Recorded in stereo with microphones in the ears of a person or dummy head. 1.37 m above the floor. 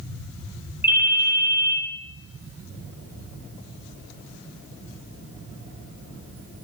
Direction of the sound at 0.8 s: 15° right (ahead or behind).